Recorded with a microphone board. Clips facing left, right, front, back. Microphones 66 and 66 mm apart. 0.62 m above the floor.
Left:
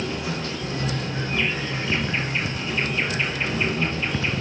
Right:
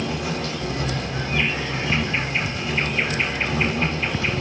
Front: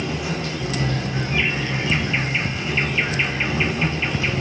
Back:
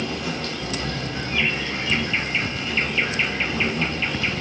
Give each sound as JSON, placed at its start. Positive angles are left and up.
{"t": 0.0, "sound": "an insect", "azimuth_deg": -75, "distance_m": 1.0}